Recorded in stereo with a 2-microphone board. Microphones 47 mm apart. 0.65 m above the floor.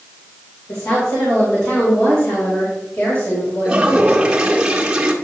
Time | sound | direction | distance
0.7 | a woman speaking | 70° left (ahead or behind) | 2.5 m
3.6 | a toilet flushing | 15° right (ahead or behind) | 1.2 m